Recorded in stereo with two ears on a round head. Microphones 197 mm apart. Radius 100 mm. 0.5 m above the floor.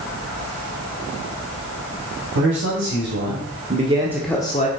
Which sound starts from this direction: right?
A man speaking, at 2.4 s.